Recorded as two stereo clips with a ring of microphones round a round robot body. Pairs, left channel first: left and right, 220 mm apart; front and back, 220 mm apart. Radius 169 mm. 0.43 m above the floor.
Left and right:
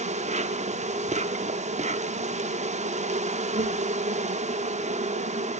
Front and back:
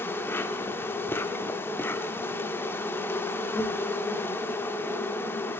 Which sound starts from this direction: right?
An insect, at 0.0 s.